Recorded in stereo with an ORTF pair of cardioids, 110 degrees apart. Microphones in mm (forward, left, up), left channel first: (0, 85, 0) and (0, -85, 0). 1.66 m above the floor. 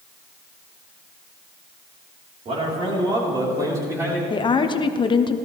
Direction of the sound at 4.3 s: 30° left.